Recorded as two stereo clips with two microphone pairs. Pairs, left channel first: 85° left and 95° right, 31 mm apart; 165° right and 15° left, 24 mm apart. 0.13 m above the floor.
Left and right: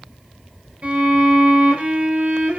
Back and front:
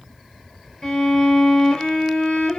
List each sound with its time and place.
0.8 s a violin: 135° right, 1.9 m